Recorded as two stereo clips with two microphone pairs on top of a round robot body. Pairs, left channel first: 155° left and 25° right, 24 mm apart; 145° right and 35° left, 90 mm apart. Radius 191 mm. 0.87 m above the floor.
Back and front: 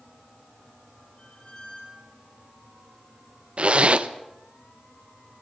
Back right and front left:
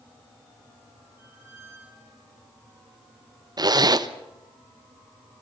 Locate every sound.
1.2 s a squeak: 105° left, 6 m
3.6 s a zipper: straight ahead, 1.2 m